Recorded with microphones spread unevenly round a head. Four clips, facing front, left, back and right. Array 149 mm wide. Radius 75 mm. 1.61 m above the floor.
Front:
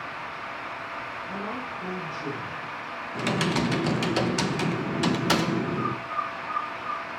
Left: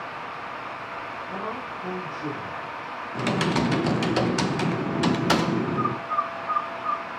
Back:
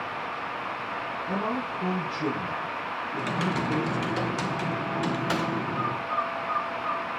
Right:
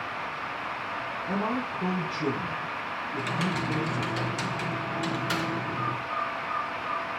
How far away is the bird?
About 2.5 m.